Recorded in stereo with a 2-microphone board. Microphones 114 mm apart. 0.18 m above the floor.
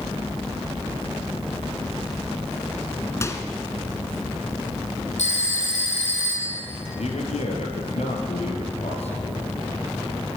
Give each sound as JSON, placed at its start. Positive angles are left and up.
{"t": 3.2, "sound": "a microwave", "side_deg": 25, "distance_m": 1.7}
{"t": 5.2, "sound": "a phone ringing", "side_deg": 80, "distance_m": 5.0}
{"t": 7.0, "sound": "a man speaking", "side_deg": 70, "distance_m": 4.0}